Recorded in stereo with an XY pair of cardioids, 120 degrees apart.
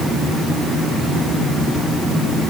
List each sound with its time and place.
Only background noise.